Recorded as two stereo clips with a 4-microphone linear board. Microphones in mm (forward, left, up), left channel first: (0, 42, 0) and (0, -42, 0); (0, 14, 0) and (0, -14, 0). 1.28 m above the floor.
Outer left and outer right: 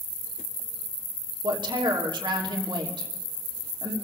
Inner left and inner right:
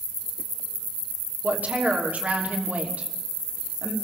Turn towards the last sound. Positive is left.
turn(degrees=-65)  # may be behind; listen again after turning